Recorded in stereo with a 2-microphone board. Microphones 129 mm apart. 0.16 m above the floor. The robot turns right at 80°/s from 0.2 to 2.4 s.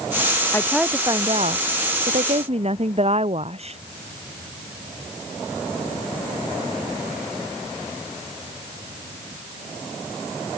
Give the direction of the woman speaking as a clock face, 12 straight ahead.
7 o'clock.